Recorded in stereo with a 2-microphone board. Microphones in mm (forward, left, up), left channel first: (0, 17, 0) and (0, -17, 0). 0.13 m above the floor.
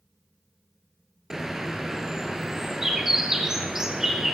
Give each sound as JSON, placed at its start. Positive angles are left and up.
{"t": 1.3, "sound": "a bird", "side_deg": -10, "distance_m": 1.2}